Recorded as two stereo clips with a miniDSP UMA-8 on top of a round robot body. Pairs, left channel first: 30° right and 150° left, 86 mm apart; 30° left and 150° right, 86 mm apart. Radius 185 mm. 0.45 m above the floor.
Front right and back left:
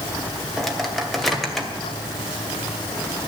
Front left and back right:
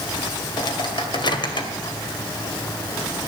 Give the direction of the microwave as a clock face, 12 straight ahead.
10 o'clock.